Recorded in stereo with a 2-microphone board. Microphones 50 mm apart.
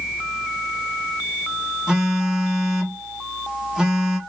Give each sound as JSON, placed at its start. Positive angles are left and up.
{"t": 1.9, "sound": "a phone buzzing", "side_deg": -10, "distance_m": 1.0}